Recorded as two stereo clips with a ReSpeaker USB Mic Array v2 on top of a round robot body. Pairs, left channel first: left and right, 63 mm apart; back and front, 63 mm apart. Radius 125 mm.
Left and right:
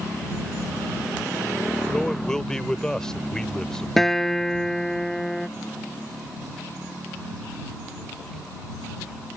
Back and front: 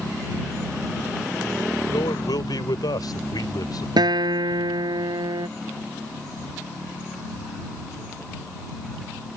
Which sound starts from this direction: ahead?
A guitar, at 4.0 s.